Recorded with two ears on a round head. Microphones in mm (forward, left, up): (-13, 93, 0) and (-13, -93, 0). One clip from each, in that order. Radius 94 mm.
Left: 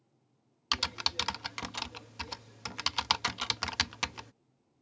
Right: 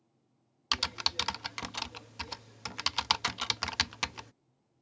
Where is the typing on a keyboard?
5° right (ahead or behind).